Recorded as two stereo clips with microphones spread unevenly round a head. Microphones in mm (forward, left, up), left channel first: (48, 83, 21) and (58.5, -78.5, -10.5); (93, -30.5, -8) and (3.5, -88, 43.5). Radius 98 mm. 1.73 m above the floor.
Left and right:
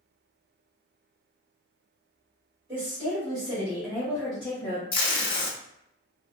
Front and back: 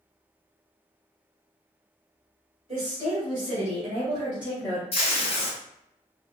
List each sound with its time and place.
2.7 s a woman speaking: 155° right, 1.7 m; by 4.8 s 135° left, 0.8 m
4.9 s tape being pulled: 105° left, 0.5 m